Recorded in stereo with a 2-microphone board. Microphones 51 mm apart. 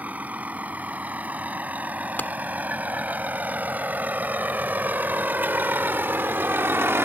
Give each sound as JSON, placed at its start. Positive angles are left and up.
{"t": 0.0, "sound": "a vehicle", "side_deg": -30}
{"t": 2.2, "sound": "a clap", "side_deg": 40}